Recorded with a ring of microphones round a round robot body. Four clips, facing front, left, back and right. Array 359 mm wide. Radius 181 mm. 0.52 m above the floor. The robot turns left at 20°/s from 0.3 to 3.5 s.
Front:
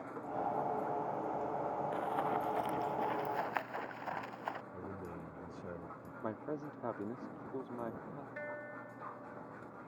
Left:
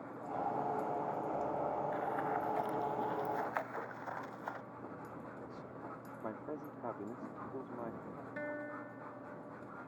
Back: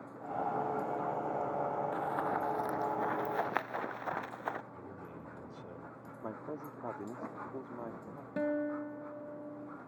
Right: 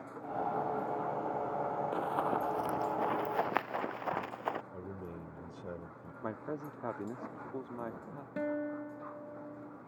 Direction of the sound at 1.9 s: 95° right.